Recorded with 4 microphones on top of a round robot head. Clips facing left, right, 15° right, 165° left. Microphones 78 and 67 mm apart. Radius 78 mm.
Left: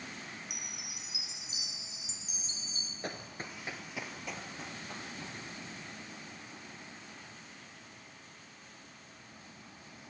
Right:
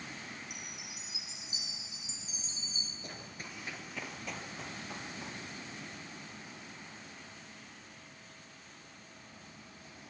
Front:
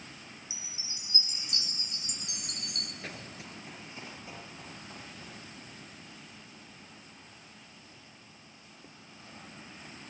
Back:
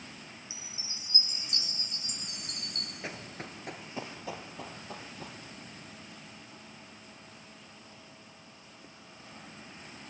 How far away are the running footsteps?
About 1.1 m.